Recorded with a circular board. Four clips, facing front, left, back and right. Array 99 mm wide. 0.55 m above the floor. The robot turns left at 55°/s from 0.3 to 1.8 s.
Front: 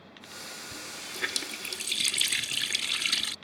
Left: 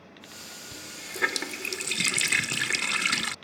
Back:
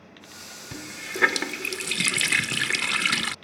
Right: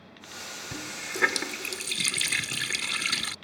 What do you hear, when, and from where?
0.7 s a running tap: 145° right; by 3.4 s 155° left